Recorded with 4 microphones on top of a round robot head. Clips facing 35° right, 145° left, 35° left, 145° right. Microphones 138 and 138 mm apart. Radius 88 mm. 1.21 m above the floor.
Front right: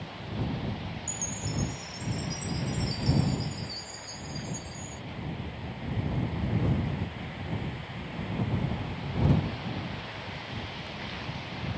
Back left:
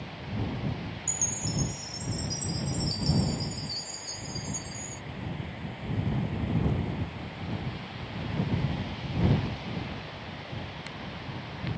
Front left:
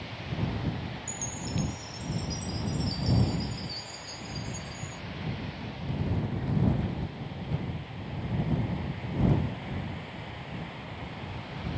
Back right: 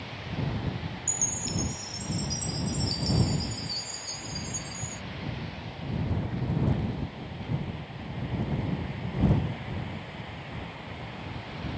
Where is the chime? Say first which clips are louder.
Even, even; straight behind.